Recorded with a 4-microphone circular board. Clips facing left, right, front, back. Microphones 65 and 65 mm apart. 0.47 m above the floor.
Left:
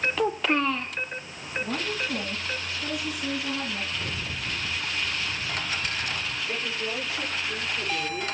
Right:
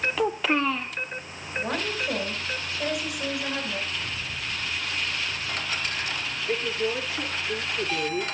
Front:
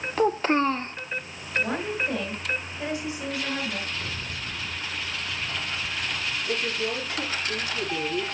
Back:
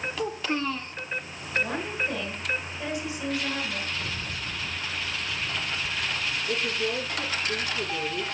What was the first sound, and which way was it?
A child speaking, straight ahead.